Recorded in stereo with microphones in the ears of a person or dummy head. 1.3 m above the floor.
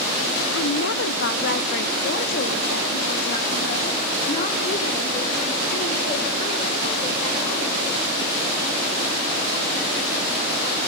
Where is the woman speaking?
70° left (ahead or behind), 1.3 m; by 8.0 s 35° left (ahead or behind), 5.5 m.